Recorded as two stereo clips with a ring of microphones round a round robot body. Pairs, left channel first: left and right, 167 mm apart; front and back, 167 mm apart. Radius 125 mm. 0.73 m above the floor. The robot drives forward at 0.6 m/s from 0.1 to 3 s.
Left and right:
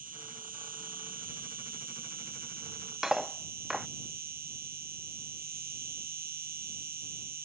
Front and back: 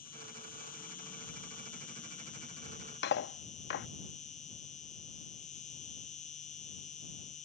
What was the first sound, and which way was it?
An insect, 55° right.